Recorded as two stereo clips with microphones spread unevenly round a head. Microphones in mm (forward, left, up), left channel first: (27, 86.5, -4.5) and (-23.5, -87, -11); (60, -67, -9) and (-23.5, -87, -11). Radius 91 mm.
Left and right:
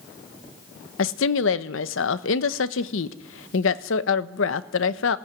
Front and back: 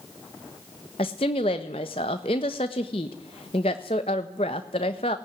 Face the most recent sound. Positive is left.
turn(degrees=55)